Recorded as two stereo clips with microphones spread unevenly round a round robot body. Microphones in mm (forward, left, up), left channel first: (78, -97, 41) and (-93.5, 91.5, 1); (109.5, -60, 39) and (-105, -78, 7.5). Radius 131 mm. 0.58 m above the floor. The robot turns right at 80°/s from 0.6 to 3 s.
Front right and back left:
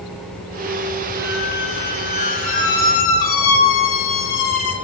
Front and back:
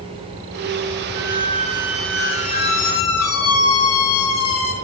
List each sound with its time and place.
1.1 s a squeak: 155° right, 1.3 m; by 4.8 s 5° right, 1.3 m